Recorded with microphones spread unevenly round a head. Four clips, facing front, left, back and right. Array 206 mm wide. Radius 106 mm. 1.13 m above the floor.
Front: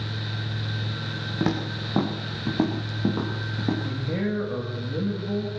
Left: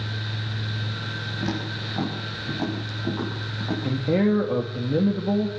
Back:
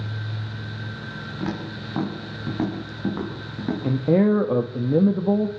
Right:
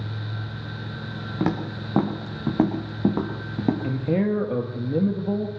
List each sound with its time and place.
1.4 s footsteps: 55° right, 6.5 m; by 3.7 s 90° right, 6 m
3.8 s a man speaking: 175° left, 1.7 m